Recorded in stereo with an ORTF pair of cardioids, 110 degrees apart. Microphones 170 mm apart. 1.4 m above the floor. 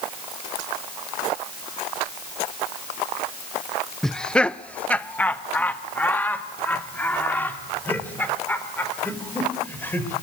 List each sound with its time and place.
4.0 s laughter: straight ahead, 0.5 m; by 10.1 s 10° left, 5.5 m